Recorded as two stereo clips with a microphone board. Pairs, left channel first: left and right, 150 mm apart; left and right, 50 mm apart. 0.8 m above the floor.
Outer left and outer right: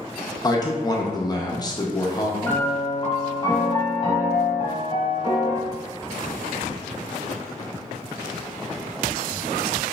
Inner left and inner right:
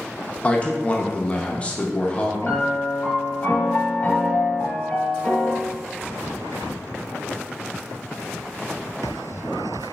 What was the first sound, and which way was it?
A man speaking, 25° left (ahead or behind).